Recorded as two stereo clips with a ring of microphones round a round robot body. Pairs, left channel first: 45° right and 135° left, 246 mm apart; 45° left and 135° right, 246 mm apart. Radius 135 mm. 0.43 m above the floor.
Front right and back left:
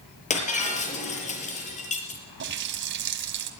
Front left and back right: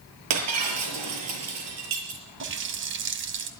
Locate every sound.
0.3 s breaking glass: 110° right, 6 m
2.4 s a running tap: straight behind, 2 m